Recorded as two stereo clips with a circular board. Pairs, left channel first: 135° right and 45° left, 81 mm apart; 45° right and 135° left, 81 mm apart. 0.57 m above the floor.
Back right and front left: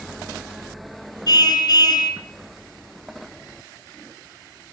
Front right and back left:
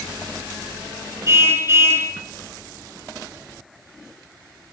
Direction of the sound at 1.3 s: 170° right.